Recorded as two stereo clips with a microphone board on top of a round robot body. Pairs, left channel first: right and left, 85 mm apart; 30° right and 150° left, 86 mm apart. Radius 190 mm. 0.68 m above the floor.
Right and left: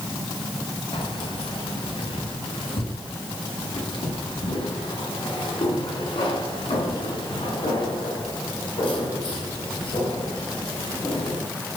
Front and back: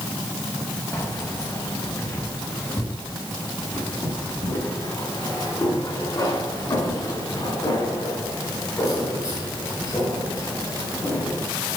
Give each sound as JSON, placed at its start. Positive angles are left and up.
{"t": 0.9, "sound": "keys jangling", "azimuth_deg": -90, "distance_m": 4.5}